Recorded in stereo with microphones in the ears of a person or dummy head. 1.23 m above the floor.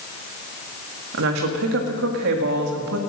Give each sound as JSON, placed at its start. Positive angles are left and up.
{"t": 1.1, "sound": "a woman speaking", "side_deg": -70, "distance_m": 1.9}